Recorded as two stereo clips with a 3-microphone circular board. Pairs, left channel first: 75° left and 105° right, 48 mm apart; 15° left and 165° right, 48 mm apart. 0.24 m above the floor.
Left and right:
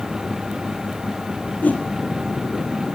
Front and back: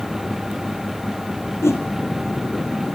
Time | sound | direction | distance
1.6 | a whoosh | 20° left | 2 m